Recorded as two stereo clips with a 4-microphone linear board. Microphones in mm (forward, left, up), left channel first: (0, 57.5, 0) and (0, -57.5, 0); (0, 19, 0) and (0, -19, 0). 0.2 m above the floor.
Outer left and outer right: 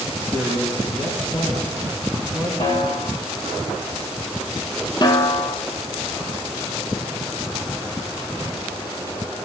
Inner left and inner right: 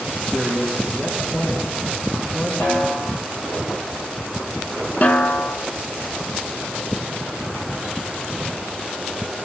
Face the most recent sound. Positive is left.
turn(degrees=40)  # may be behind; listen again after turning